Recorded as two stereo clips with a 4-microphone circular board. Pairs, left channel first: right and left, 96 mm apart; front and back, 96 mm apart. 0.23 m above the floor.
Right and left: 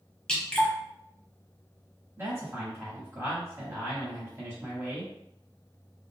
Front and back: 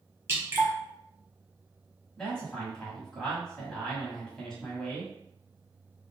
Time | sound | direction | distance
0.3 | dripping | 160° right | 1.1 m
2.2 | a man speaking | 75° left | 1.0 m